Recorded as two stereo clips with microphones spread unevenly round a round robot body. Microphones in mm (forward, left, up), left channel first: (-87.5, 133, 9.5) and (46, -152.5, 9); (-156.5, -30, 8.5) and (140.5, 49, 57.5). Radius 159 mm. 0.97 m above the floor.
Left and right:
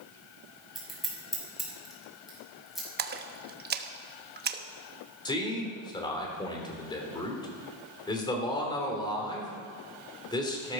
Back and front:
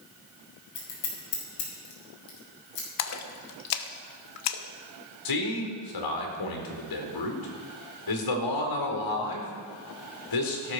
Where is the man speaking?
170° right, 4 m.